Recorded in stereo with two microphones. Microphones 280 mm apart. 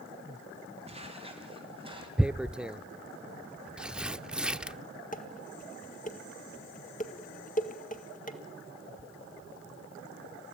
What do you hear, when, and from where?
0.9 s footsteps: 25° right (ahead or behind), 6 m; by 2.1 s 20° right (ahead or behind), 7.5 m
2.2 s tearing paper: 5° right (ahead or behind), 0.5 m
5.1 s dishes clattering: 30° left (ahead or behind), 1.8 m